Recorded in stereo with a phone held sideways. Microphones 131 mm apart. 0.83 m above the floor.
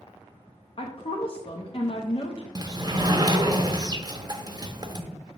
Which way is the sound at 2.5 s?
30° right (ahead or behind).